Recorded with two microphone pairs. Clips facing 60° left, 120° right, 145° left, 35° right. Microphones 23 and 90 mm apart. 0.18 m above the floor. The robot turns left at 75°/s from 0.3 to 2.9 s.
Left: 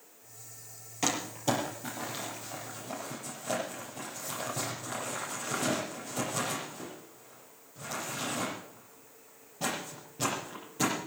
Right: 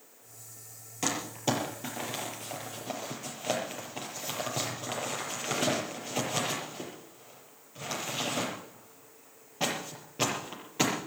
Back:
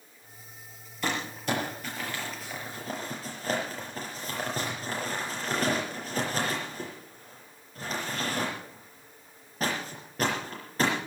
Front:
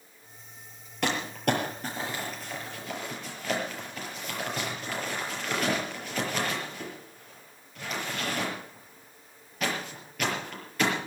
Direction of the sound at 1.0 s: 20° right.